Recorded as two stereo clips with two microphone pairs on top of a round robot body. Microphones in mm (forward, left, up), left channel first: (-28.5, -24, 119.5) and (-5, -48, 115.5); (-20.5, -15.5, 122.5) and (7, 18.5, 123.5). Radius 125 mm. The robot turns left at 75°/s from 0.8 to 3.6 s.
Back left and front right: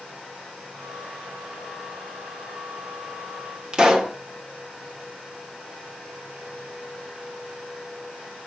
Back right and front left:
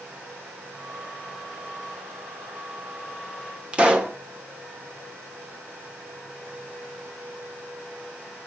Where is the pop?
Straight ahead, 1.2 m.